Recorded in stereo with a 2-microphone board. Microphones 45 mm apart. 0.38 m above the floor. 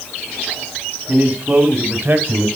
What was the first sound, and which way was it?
A man speaking, 25° right (ahead or behind).